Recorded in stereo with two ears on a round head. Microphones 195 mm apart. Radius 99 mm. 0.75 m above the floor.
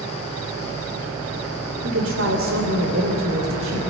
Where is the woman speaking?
65° right (ahead or behind), 2.5 m; by 3.9 s 70° right (ahead or behind), 4 m.